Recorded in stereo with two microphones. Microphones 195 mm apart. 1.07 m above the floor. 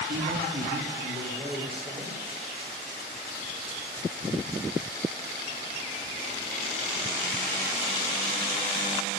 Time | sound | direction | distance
0.1 | a man speaking | 75° right (ahead or behind) | 2.5 m